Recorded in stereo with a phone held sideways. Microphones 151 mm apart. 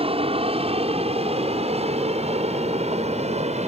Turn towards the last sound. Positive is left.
turn(degrees=-50)  # may be behind; listen again after turning